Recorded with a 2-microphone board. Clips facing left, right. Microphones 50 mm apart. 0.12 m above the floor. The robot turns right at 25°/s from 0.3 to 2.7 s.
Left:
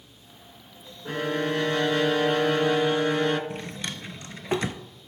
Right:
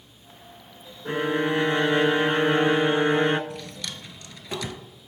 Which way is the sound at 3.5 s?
35° left (ahead or behind).